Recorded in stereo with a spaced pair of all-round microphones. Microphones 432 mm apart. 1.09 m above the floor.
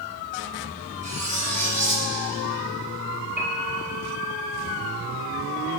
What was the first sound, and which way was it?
Cutlery clinking, 15° right (ahead or behind).